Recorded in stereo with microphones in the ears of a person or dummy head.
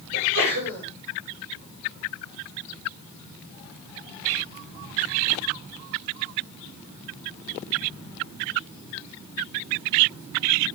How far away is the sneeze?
About 7 m.